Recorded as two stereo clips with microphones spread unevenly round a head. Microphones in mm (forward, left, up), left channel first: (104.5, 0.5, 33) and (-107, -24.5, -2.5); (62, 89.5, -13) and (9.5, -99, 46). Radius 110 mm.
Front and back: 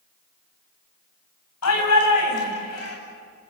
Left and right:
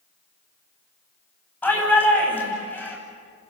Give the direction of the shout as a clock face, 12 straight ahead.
12 o'clock.